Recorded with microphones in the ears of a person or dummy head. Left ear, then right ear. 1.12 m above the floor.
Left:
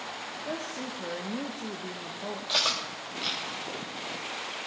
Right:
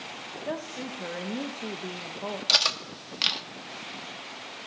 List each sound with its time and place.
0.5 s a woman speaking: 35° right (ahead or behind), 1.0 m
2.5 s cutlery clinking: 70° right (ahead or behind), 1.2 m